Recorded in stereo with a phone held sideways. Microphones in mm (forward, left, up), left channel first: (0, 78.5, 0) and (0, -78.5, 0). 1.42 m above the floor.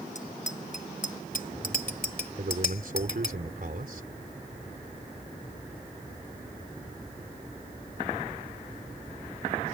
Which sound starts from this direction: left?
A bicycle bell, at 0.1 s.